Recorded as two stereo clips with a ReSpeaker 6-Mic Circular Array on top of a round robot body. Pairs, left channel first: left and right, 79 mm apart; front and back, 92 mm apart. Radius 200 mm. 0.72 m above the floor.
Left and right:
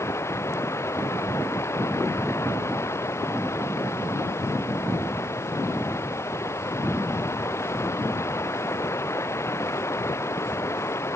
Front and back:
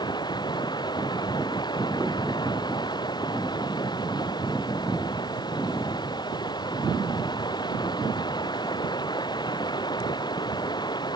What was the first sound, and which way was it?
Running water, 35° left.